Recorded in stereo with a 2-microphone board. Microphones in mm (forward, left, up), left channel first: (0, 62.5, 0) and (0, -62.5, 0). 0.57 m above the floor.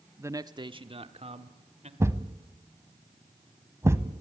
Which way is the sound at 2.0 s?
20° right (ahead or behind).